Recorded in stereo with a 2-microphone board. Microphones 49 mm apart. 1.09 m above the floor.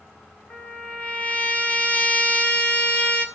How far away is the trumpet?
About 1.7 m.